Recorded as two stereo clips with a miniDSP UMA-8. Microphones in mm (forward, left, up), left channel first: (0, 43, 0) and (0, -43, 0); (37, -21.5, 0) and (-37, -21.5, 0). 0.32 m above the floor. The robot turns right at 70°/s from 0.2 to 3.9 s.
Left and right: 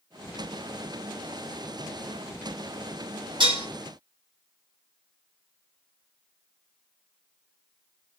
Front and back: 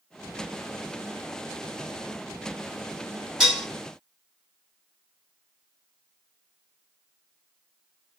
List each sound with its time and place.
3.4 s dishes clattering: 100° right, 1.8 m; by 3.7 s 80° right, 1.8 m